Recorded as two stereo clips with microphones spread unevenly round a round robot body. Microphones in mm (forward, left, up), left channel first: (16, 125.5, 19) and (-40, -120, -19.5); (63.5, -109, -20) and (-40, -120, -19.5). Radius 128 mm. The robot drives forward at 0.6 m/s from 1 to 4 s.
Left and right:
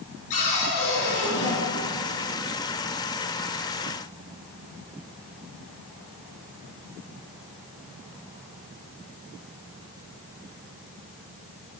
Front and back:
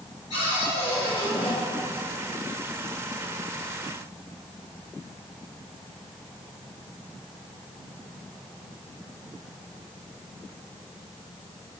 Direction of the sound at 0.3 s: 70° left.